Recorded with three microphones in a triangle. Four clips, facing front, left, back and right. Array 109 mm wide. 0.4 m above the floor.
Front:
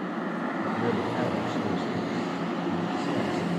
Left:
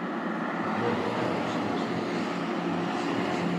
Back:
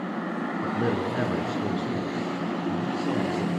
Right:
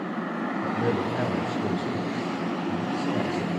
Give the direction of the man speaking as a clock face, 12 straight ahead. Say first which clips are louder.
Right 2 dB, back 1 dB; 6 o'clock.